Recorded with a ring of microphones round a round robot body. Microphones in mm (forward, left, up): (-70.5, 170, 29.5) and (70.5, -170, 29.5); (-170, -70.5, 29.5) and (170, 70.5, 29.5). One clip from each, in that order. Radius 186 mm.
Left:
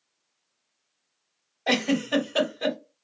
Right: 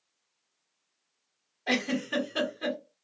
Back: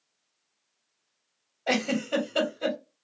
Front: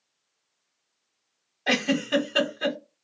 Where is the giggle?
60° left, 1.9 m.